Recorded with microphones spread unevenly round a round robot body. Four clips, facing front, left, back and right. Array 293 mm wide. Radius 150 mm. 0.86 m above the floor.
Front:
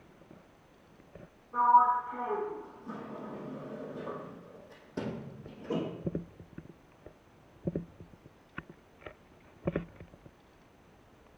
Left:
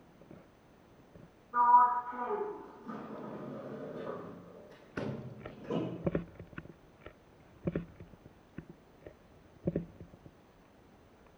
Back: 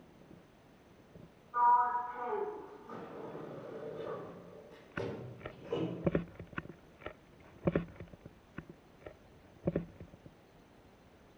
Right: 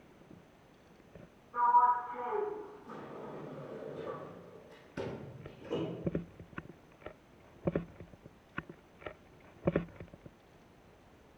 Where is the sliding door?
35° left, 5.5 m.